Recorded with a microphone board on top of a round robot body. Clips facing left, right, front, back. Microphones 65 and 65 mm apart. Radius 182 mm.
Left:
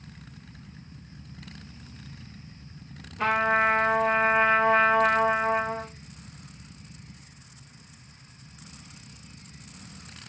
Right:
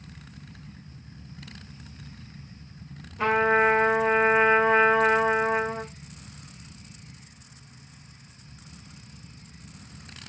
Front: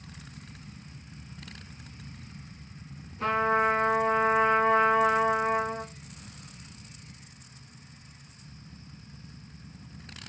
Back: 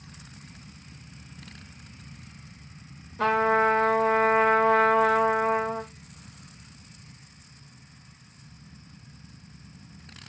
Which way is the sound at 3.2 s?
170° right.